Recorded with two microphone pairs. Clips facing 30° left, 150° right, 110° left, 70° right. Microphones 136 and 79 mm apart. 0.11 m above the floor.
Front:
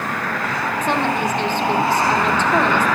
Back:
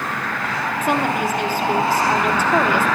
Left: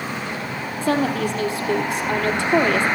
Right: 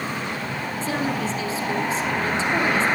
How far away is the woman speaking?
About 3.5 m.